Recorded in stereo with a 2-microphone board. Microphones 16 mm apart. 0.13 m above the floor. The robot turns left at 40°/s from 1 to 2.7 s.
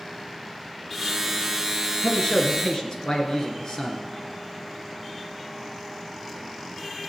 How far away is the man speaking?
About 2.5 m.